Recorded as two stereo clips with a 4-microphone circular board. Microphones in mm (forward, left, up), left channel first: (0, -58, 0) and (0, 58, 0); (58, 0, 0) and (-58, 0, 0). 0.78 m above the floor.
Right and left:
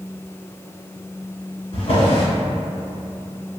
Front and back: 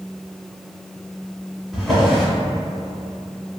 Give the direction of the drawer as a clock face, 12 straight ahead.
3 o'clock.